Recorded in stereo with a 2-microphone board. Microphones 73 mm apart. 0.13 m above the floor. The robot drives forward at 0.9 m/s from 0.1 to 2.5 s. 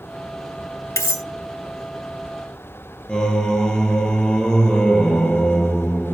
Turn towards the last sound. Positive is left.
turn(degrees=5)  # may be behind; listen again after turning